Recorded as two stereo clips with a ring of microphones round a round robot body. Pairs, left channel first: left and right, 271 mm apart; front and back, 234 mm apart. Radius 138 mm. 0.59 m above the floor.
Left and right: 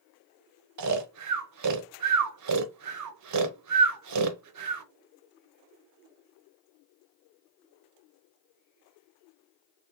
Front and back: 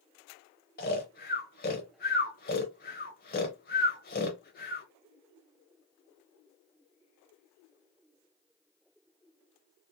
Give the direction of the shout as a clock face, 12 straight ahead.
I don't hear a shout.